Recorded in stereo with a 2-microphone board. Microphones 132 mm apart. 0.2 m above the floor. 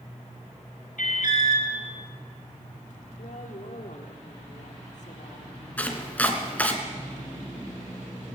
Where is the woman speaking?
65° left (ahead or behind), 5.5 m.